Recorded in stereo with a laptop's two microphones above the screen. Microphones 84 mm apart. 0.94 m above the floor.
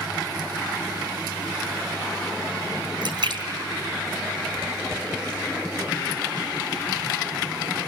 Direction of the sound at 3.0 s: 70° right (ahead or behind).